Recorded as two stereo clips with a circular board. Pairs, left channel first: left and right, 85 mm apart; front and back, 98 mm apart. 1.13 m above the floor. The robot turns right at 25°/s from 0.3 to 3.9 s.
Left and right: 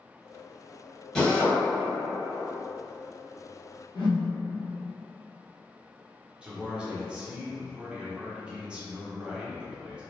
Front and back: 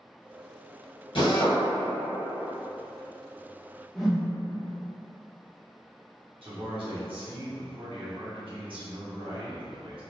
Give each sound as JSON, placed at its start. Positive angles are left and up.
{"t": 1.1, "sound": "a drill", "azimuth_deg": 10, "distance_m": 1.1}
{"t": 4.0, "sound": "a whoosh", "azimuth_deg": 90, "distance_m": 0.7}
{"t": 6.4, "sound": "a man speaking", "azimuth_deg": -165, "distance_m": 0.8}